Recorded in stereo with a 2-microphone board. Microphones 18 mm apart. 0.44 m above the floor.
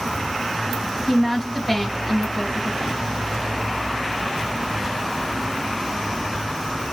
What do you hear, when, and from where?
1.1 s a woman speaking: centre (ahead or behind), 3 m